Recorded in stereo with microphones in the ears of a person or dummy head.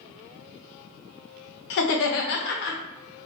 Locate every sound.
1.7 s laughter: 60° left (ahead or behind), 0.7 m